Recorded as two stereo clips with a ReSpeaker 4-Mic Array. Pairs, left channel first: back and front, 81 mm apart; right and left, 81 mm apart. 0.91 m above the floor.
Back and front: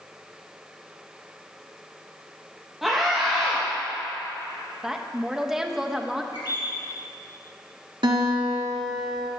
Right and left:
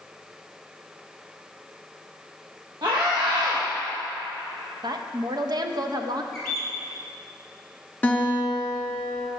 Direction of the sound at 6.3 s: 175° right.